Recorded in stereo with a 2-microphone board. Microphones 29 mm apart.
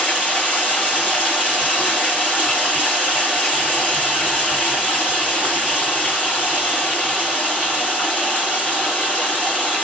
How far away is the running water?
About 3 m.